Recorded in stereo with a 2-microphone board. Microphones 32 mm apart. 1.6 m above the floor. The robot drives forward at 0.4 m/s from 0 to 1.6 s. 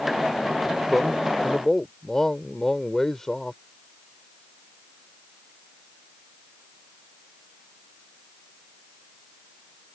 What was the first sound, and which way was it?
A man speaking, 15° left (ahead or behind).